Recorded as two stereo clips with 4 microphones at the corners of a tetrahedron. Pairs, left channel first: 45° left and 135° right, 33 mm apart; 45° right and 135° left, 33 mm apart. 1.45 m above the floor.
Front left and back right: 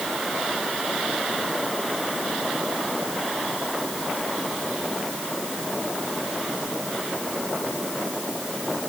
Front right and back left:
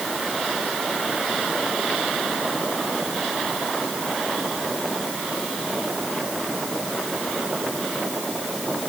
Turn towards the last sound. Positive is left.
No sound to turn to.